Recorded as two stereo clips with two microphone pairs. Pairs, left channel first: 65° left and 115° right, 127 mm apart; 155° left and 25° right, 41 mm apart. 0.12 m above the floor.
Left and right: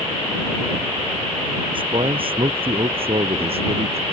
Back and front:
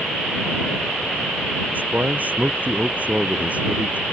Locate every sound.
1.7 s a man speaking: 65° right; by 4.0 s 75° right